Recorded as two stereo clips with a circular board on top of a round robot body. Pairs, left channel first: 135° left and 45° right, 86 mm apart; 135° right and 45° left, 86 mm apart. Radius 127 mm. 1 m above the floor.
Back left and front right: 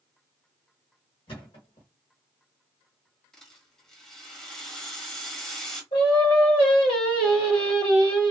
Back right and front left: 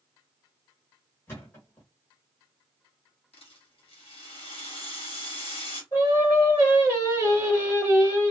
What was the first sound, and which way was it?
A thud, 165° left.